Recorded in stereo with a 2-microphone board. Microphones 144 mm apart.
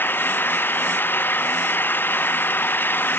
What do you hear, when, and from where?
0.0 s an engine running: 15° left (ahead or behind)